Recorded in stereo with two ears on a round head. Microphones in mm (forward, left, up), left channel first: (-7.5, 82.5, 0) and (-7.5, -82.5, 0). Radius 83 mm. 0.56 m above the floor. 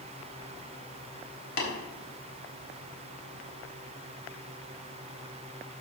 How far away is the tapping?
About 4 m.